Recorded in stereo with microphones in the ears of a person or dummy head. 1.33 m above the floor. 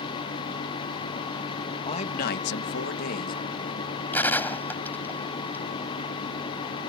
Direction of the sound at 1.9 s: 30° left (ahead or behind).